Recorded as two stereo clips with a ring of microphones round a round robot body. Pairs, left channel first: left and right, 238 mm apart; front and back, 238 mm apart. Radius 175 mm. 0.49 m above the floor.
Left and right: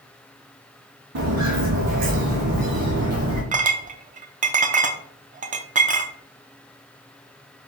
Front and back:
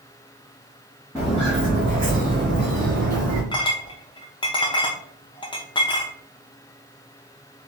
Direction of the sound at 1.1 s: 90° right.